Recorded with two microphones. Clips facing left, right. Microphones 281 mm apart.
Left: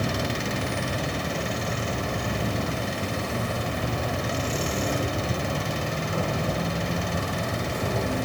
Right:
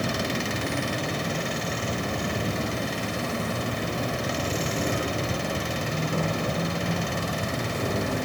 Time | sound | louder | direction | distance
0.0 | an insect | even | 40° right (ahead or behind) | 2.5 m